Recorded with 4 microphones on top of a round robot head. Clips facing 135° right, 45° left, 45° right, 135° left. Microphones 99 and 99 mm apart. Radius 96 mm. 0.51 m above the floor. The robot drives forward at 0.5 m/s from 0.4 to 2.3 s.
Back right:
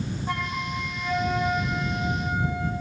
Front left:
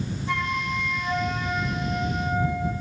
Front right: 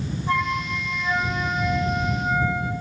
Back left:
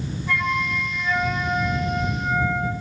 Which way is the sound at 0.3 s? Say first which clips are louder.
Front left 4 dB, even; 100° right.